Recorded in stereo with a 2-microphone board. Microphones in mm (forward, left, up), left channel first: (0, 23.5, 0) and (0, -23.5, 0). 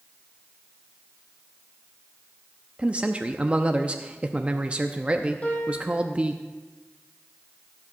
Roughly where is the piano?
Left.